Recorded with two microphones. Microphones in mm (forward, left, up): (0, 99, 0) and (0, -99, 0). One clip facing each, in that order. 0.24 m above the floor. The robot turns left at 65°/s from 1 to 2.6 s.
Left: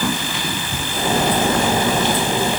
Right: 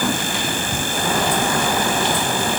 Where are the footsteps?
No footsteps in this recording.